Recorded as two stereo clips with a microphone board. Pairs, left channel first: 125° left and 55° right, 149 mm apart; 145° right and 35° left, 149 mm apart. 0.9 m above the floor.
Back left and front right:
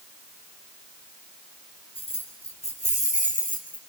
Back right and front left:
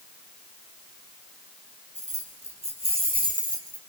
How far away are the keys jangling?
About 4.5 m.